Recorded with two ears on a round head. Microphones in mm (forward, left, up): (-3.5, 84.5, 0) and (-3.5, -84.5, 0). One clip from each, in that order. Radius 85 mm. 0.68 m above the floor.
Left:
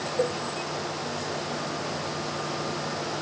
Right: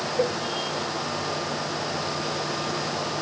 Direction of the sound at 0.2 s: 30° right (ahead or behind).